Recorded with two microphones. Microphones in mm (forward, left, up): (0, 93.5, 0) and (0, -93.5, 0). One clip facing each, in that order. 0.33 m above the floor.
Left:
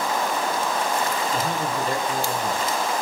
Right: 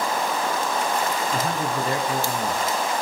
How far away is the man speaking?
About 4 m.